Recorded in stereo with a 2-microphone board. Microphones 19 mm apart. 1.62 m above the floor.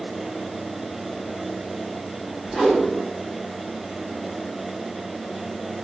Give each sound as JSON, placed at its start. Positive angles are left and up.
{"t": 2.5, "sound": "a whoosh", "side_deg": -30, "distance_m": 8.5}